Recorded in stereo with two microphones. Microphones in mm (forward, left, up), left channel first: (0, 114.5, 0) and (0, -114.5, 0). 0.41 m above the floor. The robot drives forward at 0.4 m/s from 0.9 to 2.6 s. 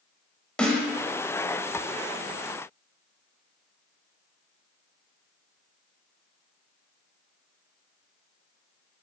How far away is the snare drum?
About 0.5 m.